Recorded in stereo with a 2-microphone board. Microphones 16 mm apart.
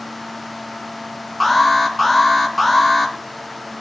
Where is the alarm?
Centre (ahead or behind), 3 m.